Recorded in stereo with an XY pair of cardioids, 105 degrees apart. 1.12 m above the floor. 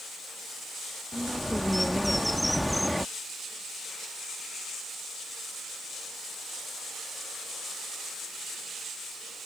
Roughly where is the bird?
Ahead.